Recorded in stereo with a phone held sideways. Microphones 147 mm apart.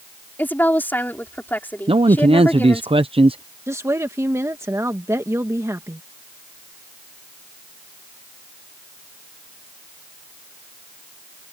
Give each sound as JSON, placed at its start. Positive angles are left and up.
{"t": 0.4, "sound": "a woman speaking", "side_deg": 15}
{"t": 1.9, "sound": "a man speaking", "side_deg": -40}
{"t": 3.7, "sound": "a woman speaking", "side_deg": -20}